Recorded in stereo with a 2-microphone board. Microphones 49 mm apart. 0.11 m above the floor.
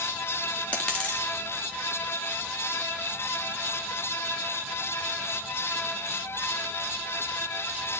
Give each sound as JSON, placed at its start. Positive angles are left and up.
{"t": 0.7, "sound": "a dropped coin", "side_deg": 25, "distance_m": 3.0}